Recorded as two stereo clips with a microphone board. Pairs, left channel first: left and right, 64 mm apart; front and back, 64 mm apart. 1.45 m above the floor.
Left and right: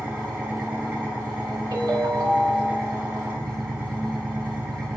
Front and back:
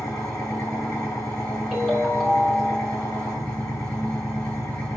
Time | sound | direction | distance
0.0 | an engine running | 30° right | 4 m
1.7 | a ringtone | 85° right | 2.5 m